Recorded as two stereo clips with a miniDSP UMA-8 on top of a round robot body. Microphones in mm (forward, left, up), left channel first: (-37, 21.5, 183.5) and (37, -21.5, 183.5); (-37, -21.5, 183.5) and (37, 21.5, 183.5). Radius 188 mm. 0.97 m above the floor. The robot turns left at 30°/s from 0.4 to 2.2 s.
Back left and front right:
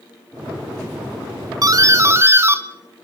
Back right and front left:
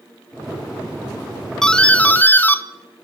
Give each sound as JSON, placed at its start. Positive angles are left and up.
{"t": 1.6, "sound": "a doorbell", "azimuth_deg": -65, "distance_m": 0.9}